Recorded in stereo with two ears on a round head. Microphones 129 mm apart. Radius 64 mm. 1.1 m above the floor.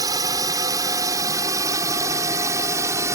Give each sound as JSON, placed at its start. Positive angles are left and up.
{"t": 0.0, "sound": "a drone", "side_deg": -25}